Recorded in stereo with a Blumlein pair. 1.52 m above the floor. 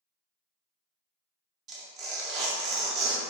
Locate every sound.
1.7 s tearing paper: 30° right, 0.6 m